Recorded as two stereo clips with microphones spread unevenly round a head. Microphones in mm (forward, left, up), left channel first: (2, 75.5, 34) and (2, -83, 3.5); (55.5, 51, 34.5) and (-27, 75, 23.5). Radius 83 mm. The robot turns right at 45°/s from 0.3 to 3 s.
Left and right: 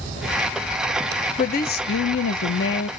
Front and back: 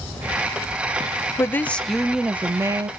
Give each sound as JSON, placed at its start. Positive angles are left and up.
{"t": 1.4, "sound": "a woman speaking", "azimuth_deg": 45, "distance_m": 0.6}